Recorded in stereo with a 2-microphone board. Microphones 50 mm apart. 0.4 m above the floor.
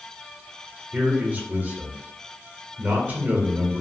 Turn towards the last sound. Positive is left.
turn(degrees=-35)  # may be behind; listen again after turning